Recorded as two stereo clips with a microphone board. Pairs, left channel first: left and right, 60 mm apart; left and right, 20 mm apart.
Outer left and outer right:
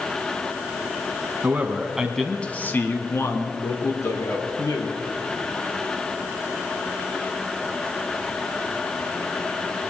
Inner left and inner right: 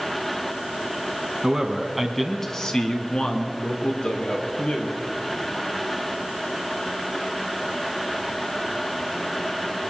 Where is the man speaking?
30° right (ahead or behind), 1.5 m; by 5.0 s 70° left (ahead or behind), 3.5 m.